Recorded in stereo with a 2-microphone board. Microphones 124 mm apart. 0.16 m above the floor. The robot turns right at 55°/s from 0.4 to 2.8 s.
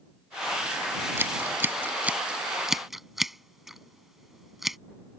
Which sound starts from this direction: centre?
Scissors, at 1.2 s.